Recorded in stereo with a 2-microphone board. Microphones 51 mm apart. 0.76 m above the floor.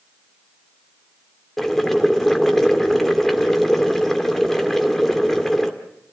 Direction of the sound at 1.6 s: 5° left (ahead or behind).